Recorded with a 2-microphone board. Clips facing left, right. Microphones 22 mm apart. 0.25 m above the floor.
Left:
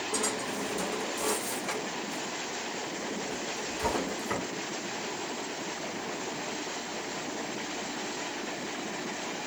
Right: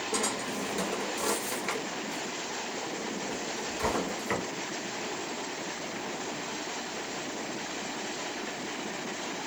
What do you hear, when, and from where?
0.1 s a drawer: 40° right (ahead or behind), 1.6 m